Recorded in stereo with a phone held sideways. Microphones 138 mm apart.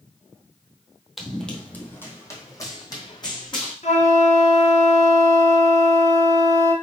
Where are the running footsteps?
Centre (ahead or behind), 1.1 m; by 3.7 s 35° left (ahead or behind), 2.5 m.